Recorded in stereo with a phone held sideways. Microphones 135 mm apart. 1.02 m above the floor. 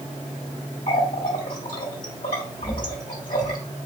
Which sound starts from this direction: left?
A running tap, at 0.9 s.